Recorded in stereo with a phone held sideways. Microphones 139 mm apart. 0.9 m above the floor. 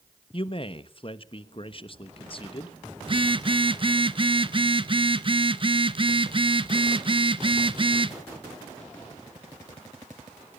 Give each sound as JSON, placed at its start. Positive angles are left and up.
{"t": 0.3, "sound": "a man speaking", "side_deg": 40, "distance_m": 1.2}
{"t": 3.0, "sound": "a phone buzzing", "side_deg": -40, "distance_m": 1.0}